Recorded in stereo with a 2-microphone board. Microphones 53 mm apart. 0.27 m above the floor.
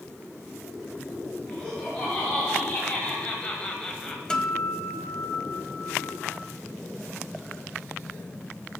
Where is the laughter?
25° left (ahead or behind), 2.5 m; by 4.2 s 10° left (ahead or behind), 1.4 m.